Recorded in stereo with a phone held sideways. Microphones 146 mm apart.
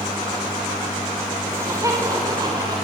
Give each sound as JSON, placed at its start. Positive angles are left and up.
{"t": 1.5, "sound": "laughter", "side_deg": -20, "distance_m": 6.0}